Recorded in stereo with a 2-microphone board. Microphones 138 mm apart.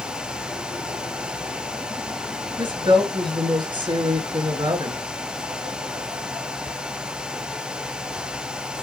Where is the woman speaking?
35° right (ahead or behind), 2.5 m.